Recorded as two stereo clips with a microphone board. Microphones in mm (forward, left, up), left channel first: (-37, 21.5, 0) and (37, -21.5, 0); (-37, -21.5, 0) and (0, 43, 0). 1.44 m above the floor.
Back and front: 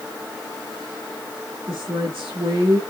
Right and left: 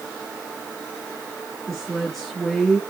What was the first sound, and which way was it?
A woman speaking, 35° right.